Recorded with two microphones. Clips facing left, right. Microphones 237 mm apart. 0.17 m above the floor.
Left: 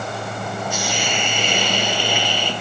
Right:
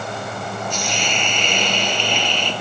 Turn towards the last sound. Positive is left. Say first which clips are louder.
# left 1 dB
turn(degrees=10)  # may be behind; listen again after turning